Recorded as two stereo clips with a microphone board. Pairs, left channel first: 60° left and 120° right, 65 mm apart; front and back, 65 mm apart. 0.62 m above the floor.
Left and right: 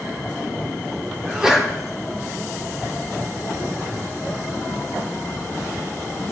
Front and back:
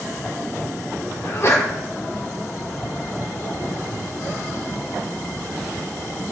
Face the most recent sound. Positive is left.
turn(degrees=-40)